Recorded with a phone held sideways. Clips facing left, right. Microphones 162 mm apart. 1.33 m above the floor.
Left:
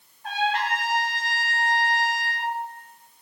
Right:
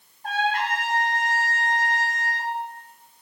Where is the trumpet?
50° right (ahead or behind), 3.5 m.